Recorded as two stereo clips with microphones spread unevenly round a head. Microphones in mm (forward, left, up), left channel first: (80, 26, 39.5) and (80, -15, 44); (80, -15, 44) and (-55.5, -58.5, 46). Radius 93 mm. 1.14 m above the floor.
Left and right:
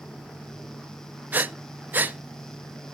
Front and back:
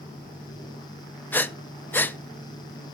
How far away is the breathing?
About 0.6 m.